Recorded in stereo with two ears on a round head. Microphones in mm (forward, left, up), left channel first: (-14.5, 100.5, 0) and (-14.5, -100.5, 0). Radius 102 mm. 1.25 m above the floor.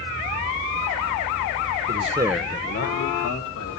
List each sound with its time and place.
1.9 s a man speaking: 45° right (ahead or behind), 1.1 m; by 3.8 s 75° left (ahead or behind), 2.5 m